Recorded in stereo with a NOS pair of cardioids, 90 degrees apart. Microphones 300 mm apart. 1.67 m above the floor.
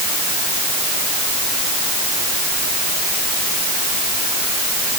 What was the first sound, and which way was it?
Only background noise.